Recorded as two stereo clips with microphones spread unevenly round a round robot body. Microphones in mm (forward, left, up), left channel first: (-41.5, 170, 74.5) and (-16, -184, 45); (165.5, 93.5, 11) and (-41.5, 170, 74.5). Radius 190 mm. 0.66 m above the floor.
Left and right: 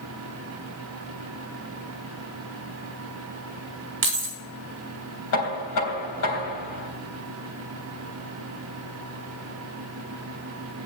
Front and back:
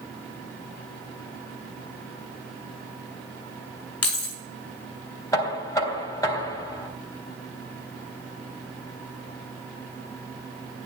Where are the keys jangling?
25° right, 1.8 m.